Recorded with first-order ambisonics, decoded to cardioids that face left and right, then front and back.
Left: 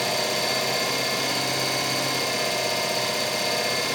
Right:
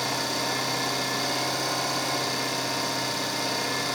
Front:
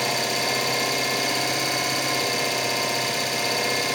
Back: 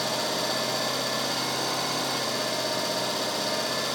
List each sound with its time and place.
0.0 s an engine running: 25° left, 9.5 m